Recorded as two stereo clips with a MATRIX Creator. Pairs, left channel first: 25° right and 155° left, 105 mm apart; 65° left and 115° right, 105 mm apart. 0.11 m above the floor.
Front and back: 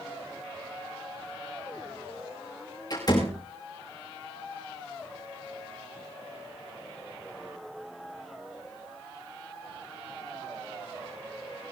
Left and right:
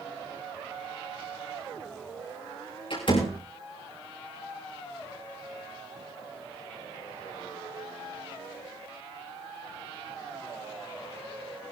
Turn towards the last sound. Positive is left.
turn(degrees=30)